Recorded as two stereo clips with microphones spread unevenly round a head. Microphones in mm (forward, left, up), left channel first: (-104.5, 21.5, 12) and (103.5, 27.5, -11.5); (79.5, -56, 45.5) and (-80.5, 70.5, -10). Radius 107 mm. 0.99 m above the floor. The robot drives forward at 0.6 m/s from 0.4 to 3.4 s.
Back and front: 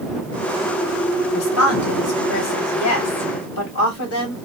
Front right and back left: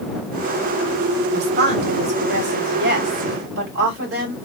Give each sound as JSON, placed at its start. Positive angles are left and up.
{"t": 1.3, "sound": "a woman speaking", "azimuth_deg": 170, "distance_m": 1.7}